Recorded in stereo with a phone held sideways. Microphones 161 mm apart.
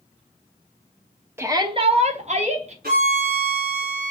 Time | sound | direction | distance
1.4 | a shout | 15° right (ahead or behind) | 0.7 m
2.8 | a violin | 75° right (ahead or behind) | 2 m